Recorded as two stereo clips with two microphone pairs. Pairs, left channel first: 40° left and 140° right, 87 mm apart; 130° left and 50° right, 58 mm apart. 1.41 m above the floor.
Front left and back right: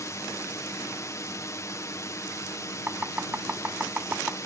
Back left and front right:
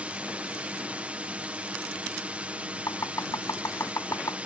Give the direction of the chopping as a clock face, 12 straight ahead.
7 o'clock.